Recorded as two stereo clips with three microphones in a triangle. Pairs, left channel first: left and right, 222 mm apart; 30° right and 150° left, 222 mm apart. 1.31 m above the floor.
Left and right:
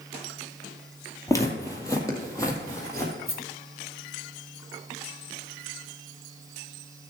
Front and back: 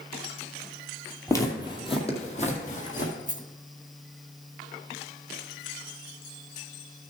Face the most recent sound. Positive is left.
turn(degrees=100)